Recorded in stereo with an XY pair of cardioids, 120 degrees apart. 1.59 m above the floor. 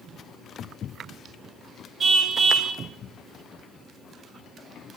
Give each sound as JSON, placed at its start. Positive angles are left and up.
{"t": 2.0, "sound": "a car horn", "azimuth_deg": -40, "distance_m": 3.0}